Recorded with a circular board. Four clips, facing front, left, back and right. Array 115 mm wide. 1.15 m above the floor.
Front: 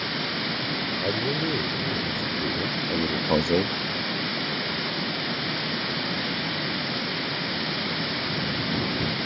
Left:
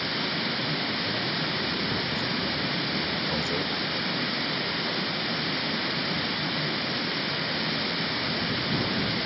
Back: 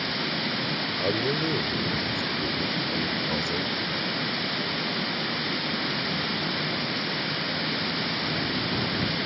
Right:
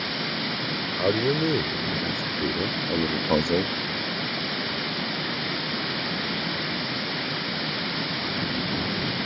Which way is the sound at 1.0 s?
95° right.